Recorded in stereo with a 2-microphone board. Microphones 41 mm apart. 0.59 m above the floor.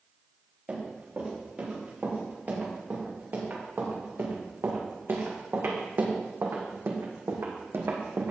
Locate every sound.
0.7 s running footsteps: 40° right (ahead or behind), 5.5 m; by 8.3 s 70° right (ahead or behind), 2 m